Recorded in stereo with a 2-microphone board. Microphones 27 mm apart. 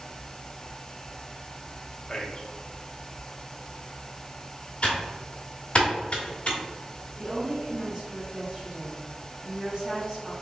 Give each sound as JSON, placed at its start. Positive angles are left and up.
{"t": 2.1, "sound": "a man speaking", "side_deg": 25, "distance_m": 0.6}
{"t": 4.8, "sound": "typing on a keyboard", "side_deg": 45, "distance_m": 1.2}
{"t": 7.2, "sound": "a woman speaking", "side_deg": -25, "distance_m": 1.6}